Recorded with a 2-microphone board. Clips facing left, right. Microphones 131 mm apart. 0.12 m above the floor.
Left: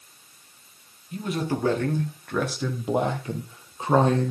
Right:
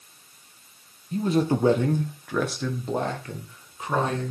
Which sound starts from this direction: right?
A man speaking, at 1.1 s.